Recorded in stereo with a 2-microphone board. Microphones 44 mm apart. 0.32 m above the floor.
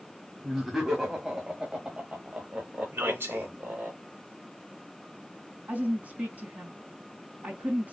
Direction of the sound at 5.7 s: 30° right (ahead or behind).